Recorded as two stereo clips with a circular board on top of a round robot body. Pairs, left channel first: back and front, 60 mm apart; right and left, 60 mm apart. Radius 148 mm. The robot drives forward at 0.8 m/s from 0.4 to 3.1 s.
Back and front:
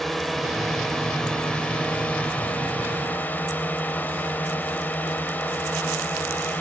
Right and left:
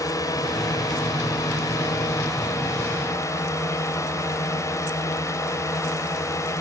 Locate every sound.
0.0 s a drone: 90° right; by 6.6 s 120° right